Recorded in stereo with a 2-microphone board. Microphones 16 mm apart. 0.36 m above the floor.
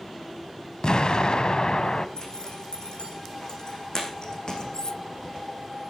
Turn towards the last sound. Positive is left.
turn(degrees=45)  # may be behind; listen again after turning